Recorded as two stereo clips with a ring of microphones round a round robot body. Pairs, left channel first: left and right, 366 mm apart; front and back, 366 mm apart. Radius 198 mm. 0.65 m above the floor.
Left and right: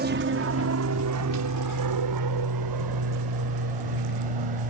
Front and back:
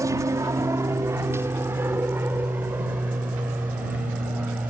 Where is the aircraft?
110° right; by 4.7 s 95° right.